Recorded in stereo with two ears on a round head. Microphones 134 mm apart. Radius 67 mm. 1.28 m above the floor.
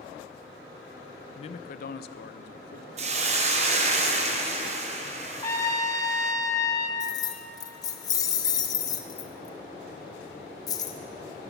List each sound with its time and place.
1.4 s a man speaking: 35° left (ahead or behind), 0.6 m; by 2.9 s 70° left (ahead or behind), 0.9 m
3.0 s a hiss: 45° right (ahead or behind), 0.9 m
5.4 s a trumpet: 20° left (ahead or behind), 1.1 m
7.0 s keys jangling: 25° left (ahead or behind), 0.8 m